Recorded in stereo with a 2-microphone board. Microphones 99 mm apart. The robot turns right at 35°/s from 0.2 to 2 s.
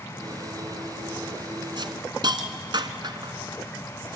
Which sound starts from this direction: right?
A hiss, at 1.8 s.